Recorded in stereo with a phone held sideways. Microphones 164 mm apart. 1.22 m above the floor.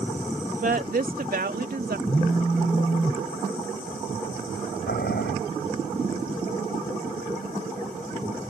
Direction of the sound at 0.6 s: 60° right (ahead or behind).